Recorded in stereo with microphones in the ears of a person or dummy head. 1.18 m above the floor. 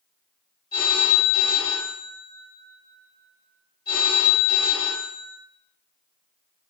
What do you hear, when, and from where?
0.7 s a phone ringing: 20° left (ahead or behind), 1.3 m